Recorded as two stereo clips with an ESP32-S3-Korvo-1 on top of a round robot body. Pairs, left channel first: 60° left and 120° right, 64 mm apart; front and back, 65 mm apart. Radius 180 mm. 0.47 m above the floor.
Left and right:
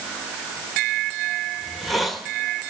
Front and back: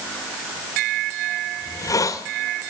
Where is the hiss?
30° right, 2 m.